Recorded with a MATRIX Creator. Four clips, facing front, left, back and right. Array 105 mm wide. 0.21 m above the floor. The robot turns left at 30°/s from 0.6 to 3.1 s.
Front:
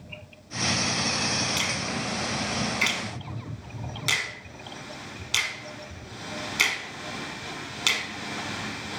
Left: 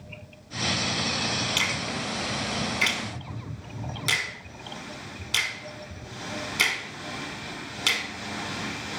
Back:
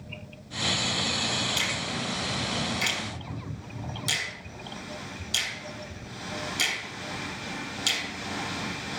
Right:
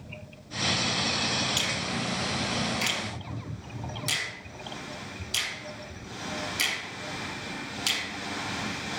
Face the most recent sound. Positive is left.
turn(degrees=30)